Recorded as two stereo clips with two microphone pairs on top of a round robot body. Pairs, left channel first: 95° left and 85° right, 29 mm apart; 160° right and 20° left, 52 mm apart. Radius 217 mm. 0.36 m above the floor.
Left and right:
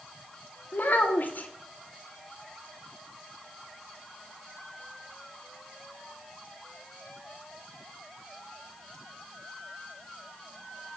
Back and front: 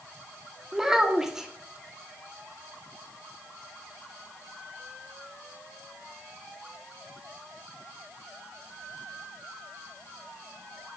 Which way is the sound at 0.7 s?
90° left.